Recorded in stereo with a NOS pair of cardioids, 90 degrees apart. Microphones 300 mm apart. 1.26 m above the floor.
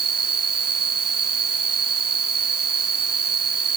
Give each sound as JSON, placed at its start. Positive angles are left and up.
{"t": 0.0, "sound": "an insect", "azimuth_deg": -55}